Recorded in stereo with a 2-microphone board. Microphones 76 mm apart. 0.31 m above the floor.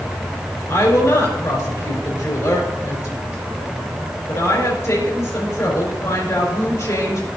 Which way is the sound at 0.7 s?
35° left (ahead or behind).